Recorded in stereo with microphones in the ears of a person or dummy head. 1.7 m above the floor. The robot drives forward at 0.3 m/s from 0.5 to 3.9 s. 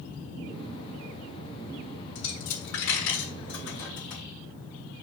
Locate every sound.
2.1 s a dropped coin: 60° left (ahead or behind), 3 m